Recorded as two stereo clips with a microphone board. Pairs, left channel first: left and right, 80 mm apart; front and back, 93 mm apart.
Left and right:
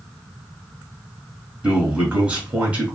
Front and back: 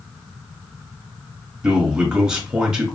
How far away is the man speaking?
About 1.2 m.